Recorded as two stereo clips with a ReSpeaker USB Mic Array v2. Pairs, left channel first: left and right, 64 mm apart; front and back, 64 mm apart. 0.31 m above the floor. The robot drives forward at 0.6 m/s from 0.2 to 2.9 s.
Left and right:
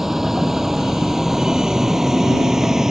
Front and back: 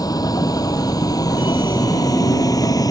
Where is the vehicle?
5° right.